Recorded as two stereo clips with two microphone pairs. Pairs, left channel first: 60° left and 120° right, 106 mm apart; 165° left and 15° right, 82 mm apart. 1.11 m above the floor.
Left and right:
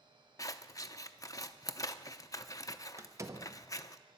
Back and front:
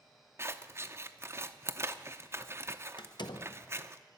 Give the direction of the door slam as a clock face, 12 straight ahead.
6 o'clock.